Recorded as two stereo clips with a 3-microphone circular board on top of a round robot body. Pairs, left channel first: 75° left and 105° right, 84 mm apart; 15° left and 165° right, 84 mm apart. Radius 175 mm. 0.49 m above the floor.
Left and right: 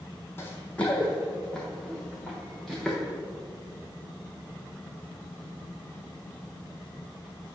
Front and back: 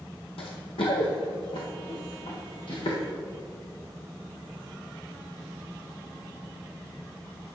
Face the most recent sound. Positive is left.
turn(degrees=-10)